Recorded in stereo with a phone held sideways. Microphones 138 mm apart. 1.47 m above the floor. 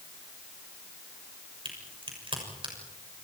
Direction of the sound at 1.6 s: 40° right (ahead or behind).